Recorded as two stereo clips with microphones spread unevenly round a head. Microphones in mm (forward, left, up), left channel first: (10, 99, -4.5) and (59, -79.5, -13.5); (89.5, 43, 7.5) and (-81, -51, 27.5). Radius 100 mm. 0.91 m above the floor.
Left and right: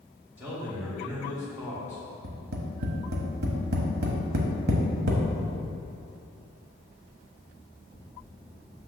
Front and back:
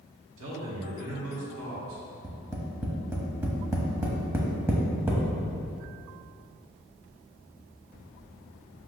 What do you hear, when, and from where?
0.4 s a man speaking: 155° right, 2 m
2.2 s tapping: 80° right, 1.0 m